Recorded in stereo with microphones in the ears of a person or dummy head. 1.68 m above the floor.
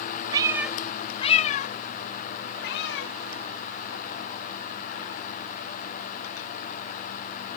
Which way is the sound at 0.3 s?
20° right (ahead or behind).